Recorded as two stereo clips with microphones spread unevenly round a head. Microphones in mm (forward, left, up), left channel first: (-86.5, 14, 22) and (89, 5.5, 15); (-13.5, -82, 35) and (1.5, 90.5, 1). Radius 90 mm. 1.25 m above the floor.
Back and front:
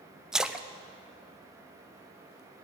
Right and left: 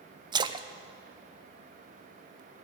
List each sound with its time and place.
0.3 s a splash: 80° left, 0.6 m